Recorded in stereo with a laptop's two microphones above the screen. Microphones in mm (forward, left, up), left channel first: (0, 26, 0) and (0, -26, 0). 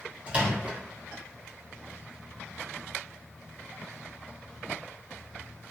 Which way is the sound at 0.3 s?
25° right (ahead or behind).